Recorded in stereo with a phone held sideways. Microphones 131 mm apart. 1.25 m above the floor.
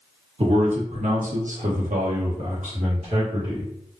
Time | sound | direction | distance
0.4 | a man speaking | 50° right (ahead or behind) | 1.0 m